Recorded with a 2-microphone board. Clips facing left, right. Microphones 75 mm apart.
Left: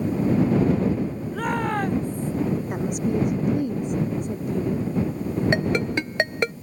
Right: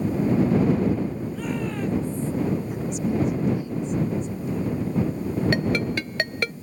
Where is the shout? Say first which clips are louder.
Left 4 dB; 60° left (ahead or behind).